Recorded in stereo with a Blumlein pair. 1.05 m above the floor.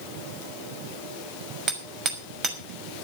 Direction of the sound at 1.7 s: 25° right.